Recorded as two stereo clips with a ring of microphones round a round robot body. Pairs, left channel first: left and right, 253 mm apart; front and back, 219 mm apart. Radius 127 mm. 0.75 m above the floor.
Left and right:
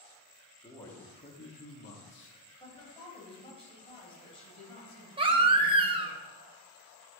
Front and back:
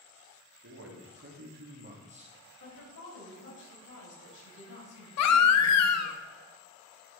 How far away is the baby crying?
About 0.7 m.